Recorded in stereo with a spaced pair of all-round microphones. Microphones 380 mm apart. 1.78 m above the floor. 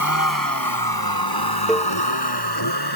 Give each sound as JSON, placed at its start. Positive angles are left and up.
{"t": 0.0, "sound": "a vehicle", "side_deg": 55}
{"t": 1.7, "sound": "a cowbell", "side_deg": 0}